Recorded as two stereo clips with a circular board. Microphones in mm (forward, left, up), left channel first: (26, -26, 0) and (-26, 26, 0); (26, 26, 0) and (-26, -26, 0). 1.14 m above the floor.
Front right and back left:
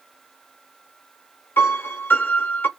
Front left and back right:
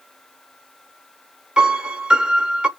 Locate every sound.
1.6 s a piano: 70° right, 0.9 m